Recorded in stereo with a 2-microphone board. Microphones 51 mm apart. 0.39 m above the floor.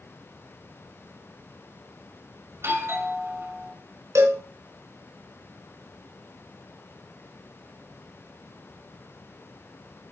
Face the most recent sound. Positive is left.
turn(degrees=-70)  # may be behind; listen again after turning